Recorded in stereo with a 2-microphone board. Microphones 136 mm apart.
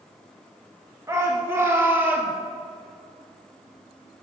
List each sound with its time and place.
1.1 s a shout: 20° right (ahead or behind), 1.3 m; by 2.3 s 15° right (ahead or behind), 1.6 m